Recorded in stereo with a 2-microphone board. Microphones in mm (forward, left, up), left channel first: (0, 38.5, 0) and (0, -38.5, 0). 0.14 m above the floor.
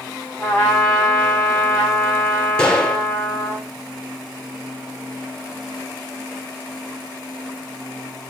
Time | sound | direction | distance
0.4 | a trumpet | 15° left (ahead or behind) | 6 m
2.6 | a gunshot | 10° left (ahead or behind) | 2 m